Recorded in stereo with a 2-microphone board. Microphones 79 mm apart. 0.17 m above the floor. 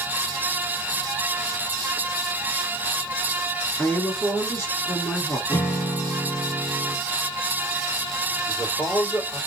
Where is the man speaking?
35° left (ahead or behind), 3 m.